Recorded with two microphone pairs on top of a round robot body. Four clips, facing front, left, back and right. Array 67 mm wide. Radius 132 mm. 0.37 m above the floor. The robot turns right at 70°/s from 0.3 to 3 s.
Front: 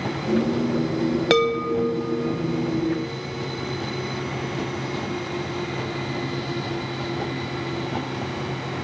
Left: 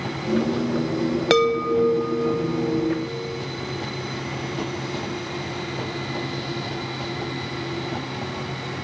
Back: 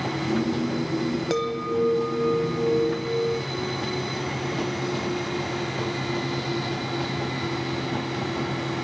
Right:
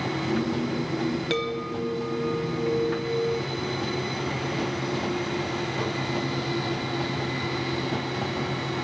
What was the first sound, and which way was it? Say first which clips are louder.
A chime: left 9 dB, front 8 dB; 80° left.